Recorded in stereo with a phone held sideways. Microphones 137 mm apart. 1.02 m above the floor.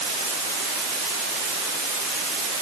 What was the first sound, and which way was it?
Only background noise.